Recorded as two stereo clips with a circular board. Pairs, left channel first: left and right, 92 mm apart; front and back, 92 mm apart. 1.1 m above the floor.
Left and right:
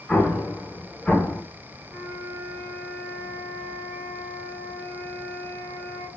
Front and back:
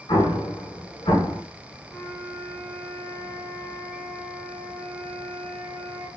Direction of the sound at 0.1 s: 5° left.